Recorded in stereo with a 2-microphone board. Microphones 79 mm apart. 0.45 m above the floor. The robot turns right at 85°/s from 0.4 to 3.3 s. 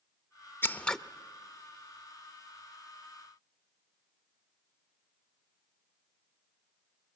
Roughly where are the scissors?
Behind left.